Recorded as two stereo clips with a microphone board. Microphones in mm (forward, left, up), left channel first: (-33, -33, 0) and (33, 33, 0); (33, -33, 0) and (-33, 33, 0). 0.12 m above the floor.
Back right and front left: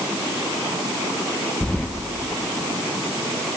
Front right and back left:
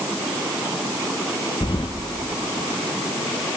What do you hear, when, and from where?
1.6 s keys jangling: 55° right, 2 m